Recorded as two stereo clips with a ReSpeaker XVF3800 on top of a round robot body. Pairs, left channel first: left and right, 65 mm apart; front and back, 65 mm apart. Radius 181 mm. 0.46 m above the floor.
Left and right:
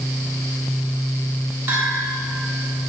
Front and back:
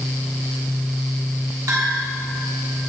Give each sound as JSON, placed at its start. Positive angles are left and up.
{"t": 1.7, "sound": "a bell", "azimuth_deg": -145, "distance_m": 3.5}